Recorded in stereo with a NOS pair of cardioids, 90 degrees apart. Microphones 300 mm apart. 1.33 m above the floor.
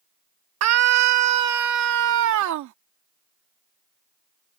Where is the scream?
60° right; by 2.7 s 75° right.